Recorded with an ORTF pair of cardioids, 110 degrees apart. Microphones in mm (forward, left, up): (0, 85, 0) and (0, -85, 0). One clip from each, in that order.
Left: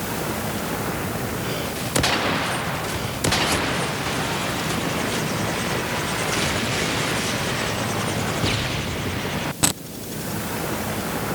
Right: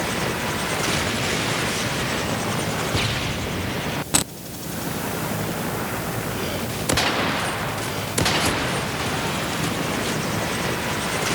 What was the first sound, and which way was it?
Only background noise.